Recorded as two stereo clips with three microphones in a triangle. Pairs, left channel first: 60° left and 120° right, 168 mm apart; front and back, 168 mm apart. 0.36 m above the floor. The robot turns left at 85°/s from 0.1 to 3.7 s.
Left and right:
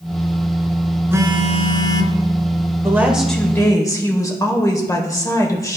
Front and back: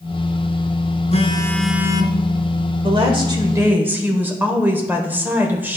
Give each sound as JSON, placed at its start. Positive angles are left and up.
{"t": 1.1, "sound": "a phone buzzing", "azimuth_deg": -45, "distance_m": 0.8}
{"t": 2.8, "sound": "a woman speaking", "azimuth_deg": -175, "distance_m": 1.2}